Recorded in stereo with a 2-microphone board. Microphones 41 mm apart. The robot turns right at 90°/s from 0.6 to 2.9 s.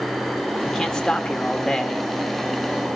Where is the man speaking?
5° left (ahead or behind), 1.0 m; by 2.1 s 15° left (ahead or behind), 1.0 m.